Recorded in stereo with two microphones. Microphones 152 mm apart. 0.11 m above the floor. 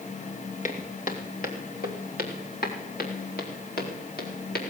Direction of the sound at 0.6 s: 55° left (ahead or behind).